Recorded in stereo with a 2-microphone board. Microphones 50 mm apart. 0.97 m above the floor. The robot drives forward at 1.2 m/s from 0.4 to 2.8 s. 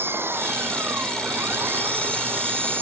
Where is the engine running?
45° right (ahead or behind); by 2.8 s 40° right (ahead or behind).